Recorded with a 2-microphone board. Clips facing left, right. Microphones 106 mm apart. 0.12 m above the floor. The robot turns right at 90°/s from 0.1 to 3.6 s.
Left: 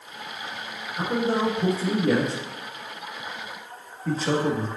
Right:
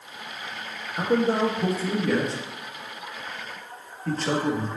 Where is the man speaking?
50° right (ahead or behind), 2.5 m; by 4.7 s 5° left (ahead or behind), 2.5 m.